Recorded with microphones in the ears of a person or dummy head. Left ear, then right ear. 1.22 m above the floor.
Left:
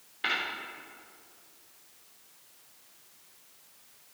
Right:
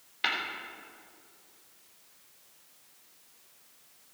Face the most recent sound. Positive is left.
turn(degrees=-30)  # may be behind; listen again after turning